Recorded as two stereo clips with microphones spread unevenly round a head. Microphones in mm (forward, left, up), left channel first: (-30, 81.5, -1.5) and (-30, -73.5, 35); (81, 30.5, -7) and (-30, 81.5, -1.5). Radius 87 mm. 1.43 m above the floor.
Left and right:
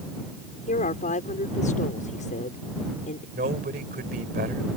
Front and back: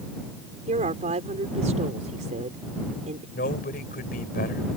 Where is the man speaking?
45° right.